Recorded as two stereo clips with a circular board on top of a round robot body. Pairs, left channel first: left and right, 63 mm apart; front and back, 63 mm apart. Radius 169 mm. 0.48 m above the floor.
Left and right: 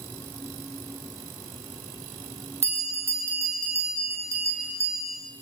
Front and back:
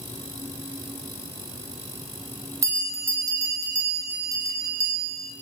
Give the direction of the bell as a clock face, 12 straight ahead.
5 o'clock.